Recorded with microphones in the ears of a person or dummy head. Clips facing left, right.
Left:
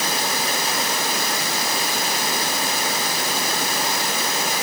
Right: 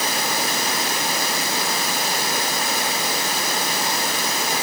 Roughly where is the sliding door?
I don't hear a sliding door.